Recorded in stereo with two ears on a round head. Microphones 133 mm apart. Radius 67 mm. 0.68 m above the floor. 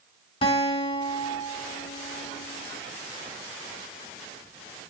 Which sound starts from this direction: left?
A guitar, at 0.4 s.